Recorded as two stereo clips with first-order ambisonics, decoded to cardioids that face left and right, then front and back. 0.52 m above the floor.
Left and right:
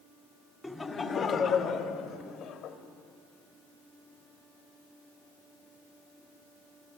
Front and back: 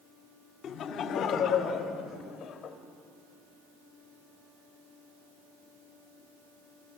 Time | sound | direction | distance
0.6 | laughter | 10° left | 1.5 m